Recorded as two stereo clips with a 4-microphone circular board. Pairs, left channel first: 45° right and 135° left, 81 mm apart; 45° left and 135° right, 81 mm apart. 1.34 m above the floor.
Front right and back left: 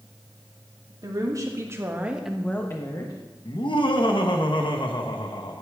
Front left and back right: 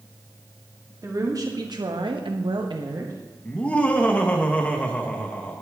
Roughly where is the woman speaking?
Behind.